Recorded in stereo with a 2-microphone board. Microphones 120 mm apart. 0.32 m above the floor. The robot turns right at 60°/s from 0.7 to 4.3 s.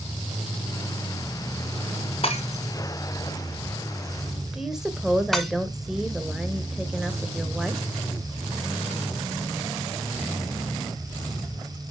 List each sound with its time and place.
2.2 s breaking glass: 50° left (ahead or behind), 1.3 m; by 5.5 s centre (ahead or behind), 1.3 m
4.5 s a woman speaking: 5° right (ahead or behind), 1.1 m